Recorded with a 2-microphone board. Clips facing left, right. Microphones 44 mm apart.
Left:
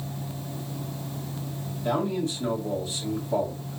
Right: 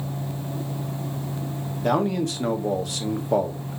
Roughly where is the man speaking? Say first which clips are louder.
Right 4 dB; right.